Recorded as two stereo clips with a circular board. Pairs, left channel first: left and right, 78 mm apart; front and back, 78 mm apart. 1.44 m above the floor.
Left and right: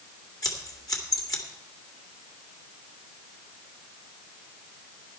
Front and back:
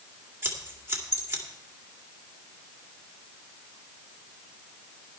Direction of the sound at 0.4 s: 120° left.